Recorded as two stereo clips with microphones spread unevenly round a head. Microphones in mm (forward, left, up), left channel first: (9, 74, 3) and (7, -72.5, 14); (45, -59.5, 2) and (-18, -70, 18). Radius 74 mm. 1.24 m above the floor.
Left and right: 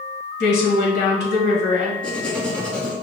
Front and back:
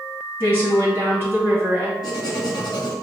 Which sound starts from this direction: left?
A woman speaking, at 0.4 s.